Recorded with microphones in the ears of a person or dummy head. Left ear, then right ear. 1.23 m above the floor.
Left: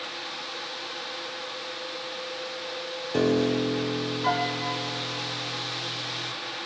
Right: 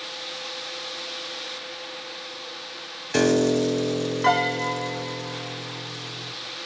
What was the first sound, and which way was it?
A piano, 60° right (ahead or behind).